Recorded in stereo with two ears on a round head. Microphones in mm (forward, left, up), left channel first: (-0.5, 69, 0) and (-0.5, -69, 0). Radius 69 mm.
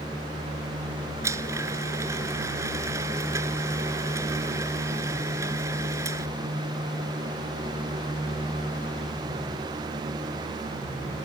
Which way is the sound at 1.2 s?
20° right (ahead or behind).